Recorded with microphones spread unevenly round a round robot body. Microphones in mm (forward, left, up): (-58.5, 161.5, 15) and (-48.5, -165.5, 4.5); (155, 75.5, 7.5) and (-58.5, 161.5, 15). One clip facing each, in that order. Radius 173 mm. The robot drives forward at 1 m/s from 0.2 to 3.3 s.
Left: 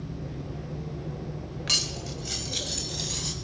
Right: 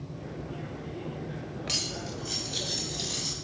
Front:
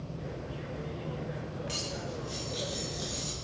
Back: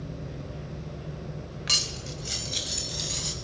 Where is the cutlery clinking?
150° left, 1.6 m; by 3.3 s 165° left, 3 m.